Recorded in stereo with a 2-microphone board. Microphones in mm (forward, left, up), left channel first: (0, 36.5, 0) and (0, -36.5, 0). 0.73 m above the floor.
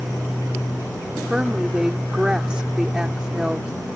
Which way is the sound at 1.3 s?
10° right (ahead or behind).